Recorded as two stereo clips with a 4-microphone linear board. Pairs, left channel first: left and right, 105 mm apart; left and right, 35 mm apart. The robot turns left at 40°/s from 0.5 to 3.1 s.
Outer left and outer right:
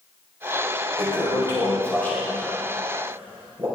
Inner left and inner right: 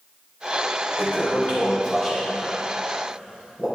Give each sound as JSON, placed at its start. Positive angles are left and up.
{"t": 1.0, "sound": "a toilet flushing", "side_deg": 55, "distance_m": 3.0}